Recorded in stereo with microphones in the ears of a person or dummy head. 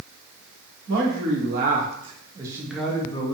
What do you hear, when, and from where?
0.9 s a man speaking: 55° right (ahead or behind), 1.3 m; by 3.3 s 30° left (ahead or behind), 0.7 m